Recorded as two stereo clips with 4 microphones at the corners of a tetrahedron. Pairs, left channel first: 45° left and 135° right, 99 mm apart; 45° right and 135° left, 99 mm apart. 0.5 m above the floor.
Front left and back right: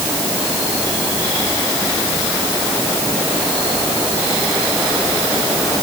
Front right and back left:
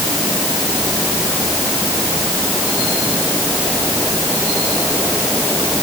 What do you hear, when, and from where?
Only background noise.